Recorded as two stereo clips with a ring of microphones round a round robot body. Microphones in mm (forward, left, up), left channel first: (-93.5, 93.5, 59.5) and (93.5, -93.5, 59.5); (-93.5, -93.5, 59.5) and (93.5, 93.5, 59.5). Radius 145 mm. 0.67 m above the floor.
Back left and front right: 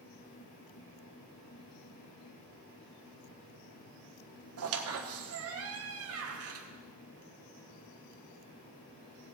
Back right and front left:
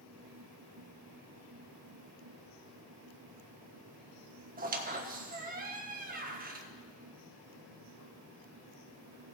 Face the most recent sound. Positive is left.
turn(degrees=-15)